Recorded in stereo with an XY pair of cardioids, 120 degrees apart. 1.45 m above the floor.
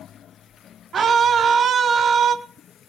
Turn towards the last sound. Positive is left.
turn(degrees=-45)